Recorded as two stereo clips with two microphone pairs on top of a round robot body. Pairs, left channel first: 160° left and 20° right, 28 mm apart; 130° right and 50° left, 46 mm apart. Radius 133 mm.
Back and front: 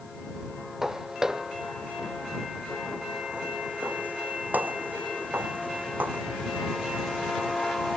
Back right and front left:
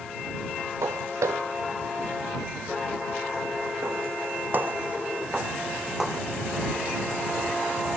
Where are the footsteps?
55° left; by 6.2 s 35° right.